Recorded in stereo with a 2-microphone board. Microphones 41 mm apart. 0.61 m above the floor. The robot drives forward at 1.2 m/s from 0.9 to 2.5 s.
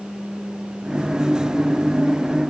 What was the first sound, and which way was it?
Only background noise.